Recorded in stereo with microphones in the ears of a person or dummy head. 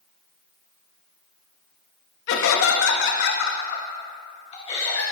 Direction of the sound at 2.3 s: 75° left (ahead or behind).